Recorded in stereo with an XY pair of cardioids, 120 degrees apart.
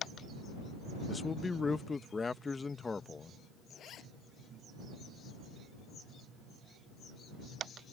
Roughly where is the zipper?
Ahead left.